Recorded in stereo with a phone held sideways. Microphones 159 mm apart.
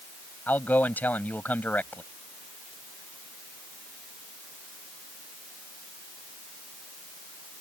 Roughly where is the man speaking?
Centre.